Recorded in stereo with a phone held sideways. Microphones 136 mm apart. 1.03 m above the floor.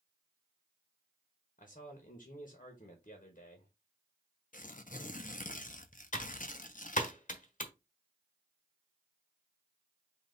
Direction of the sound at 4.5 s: 65° left (ahead or behind).